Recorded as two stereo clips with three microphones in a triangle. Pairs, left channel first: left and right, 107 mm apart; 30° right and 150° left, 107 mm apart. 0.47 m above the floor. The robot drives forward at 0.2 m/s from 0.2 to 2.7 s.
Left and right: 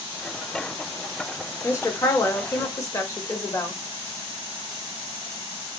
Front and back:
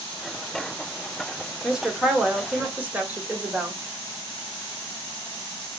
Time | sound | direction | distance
1.6 | a woman speaking | 65° left | 0.9 m